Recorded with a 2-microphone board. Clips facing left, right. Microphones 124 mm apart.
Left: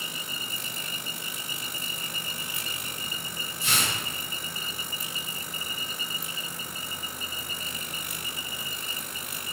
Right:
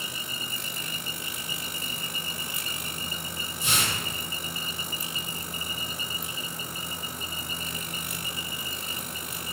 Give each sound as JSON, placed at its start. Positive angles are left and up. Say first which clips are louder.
{"t": 3.6, "sound": "tearing paper", "louder": "even", "side_deg": -20, "distance_m": 1.4}